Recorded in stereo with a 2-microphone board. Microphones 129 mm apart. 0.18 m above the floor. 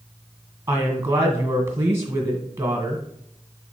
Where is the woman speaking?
20° right (ahead or behind), 1.7 m.